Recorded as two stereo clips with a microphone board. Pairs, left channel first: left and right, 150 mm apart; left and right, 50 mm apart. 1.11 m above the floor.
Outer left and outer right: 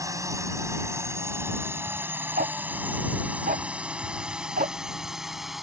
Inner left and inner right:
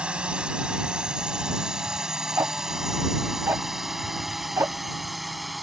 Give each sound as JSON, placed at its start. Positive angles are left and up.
{"t": 0.0, "sound": "a drone", "side_deg": -20}
{"t": 2.4, "sound": "ticking", "side_deg": -65}